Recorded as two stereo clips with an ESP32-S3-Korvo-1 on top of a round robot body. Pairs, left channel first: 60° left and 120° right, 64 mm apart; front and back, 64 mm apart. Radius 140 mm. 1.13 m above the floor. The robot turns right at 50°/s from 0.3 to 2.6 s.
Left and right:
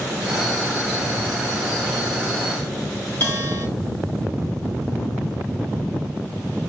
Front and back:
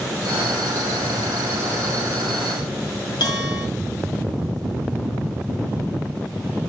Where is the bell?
Straight ahead, 5 m.